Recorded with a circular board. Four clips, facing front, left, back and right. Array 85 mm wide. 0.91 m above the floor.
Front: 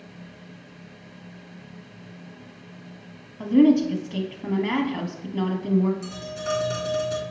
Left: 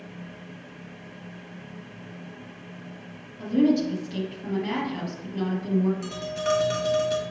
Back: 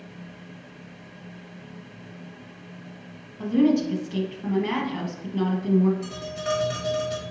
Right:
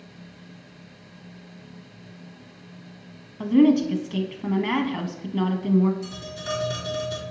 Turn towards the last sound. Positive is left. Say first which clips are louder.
# left 6 dB, back 1 dB
turn(degrees=110)